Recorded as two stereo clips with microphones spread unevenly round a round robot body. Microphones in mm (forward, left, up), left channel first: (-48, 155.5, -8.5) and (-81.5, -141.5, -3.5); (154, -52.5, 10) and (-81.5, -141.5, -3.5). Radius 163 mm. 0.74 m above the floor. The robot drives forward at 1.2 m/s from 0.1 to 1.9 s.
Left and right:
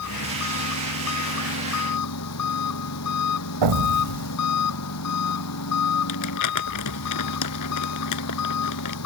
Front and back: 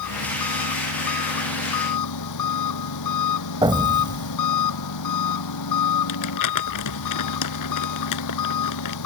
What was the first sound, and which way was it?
An engine running, 35° left.